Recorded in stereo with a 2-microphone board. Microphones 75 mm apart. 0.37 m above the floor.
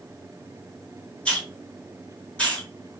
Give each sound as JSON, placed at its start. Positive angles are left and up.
{"t": 1.2, "sound": "a hiss", "side_deg": 15, "distance_m": 2.5}